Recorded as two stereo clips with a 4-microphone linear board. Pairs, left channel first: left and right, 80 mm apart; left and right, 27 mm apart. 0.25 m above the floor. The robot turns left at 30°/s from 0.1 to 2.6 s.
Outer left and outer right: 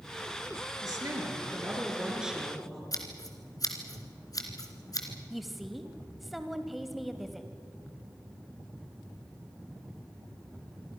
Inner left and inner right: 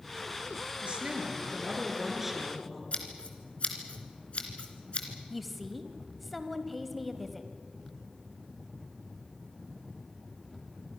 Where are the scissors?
50° left (ahead or behind), 2.5 m.